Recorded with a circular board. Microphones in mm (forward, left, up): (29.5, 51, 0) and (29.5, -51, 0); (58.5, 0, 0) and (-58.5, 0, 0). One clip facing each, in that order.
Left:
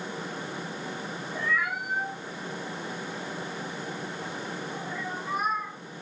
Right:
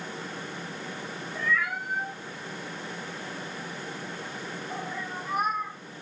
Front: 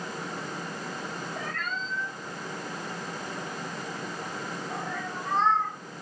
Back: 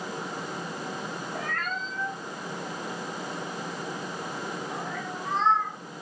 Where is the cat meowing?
150° left, 0.8 m; by 5.8 s 75° right, 1.7 m.